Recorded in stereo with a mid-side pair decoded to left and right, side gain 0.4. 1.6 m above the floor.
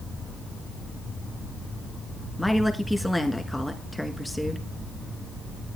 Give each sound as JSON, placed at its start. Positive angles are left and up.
{"t": 2.4, "sound": "a woman speaking", "azimuth_deg": 5, "distance_m": 1.7}